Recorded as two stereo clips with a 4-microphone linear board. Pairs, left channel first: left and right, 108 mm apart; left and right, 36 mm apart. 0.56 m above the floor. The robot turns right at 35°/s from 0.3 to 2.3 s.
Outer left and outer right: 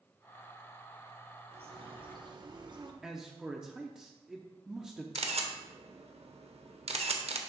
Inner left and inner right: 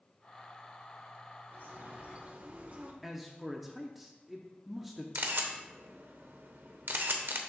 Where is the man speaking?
5° right (ahead or behind), 0.6 m.